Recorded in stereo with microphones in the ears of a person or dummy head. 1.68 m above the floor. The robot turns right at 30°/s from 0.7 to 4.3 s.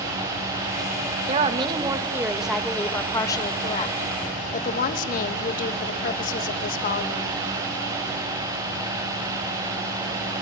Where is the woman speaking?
35° right, 2.5 m; by 7.3 s 55° left, 2.5 m.